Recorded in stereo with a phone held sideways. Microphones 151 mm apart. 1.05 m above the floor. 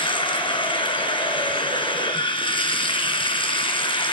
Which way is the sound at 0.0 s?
35° left (ahead or behind).